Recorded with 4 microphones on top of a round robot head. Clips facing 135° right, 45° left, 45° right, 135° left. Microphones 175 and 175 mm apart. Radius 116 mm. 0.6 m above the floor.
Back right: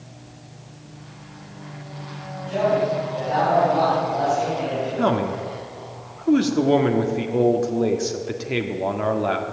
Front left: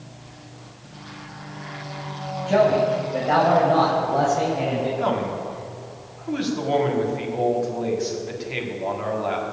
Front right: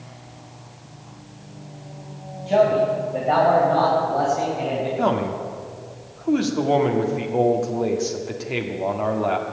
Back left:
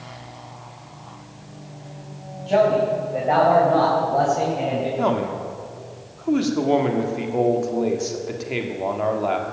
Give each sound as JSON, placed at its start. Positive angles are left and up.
{"t": 2.5, "sound": "a man speaking", "azimuth_deg": 35, "distance_m": 3.5}
{"t": 5.0, "sound": "a man speaking", "azimuth_deg": -135, "distance_m": 1.5}